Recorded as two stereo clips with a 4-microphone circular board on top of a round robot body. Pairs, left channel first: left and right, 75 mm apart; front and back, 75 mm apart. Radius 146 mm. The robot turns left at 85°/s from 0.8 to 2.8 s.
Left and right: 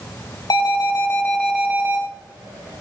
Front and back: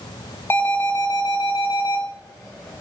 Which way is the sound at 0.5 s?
60° left.